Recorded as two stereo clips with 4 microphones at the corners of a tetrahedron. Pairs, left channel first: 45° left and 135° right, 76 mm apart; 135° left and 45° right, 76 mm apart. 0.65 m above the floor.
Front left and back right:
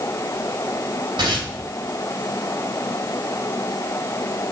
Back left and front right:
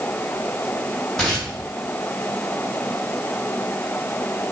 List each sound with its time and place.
1.2 s tearing paper: 140° right, 2 m